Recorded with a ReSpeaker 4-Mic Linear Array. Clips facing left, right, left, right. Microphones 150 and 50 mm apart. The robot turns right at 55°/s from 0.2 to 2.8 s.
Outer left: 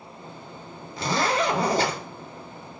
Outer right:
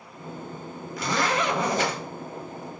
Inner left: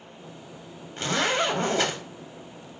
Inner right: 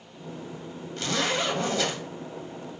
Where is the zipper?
55° left, 0.5 m; by 2.0 s 110° left, 0.5 m.